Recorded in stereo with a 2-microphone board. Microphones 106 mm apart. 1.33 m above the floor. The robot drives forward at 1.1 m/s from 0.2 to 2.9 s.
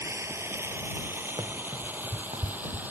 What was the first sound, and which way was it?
Running water, 25° right (ahead or behind).